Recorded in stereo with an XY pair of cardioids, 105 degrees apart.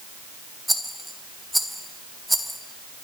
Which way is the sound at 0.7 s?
Straight ahead.